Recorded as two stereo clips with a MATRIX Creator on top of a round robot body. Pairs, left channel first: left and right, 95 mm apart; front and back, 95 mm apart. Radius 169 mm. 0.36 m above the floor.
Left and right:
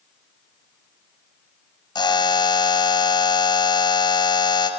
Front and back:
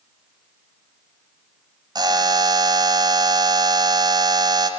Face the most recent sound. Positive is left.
turn(degrees=135)